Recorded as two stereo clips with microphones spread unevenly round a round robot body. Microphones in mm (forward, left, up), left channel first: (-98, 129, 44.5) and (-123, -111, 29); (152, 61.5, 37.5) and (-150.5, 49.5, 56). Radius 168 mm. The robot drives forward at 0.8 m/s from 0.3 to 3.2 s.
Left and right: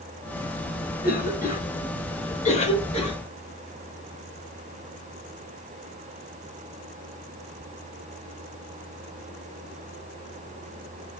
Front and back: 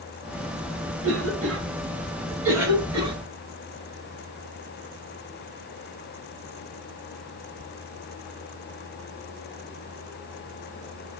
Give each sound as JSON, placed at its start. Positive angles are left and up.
{"t": 1.0, "sound": "a cough", "azimuth_deg": 135, "distance_m": 3.5}